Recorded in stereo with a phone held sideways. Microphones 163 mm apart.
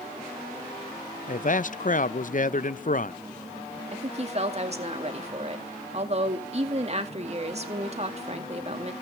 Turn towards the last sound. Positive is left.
turn(degrees=-40)  # may be behind; listen again after turning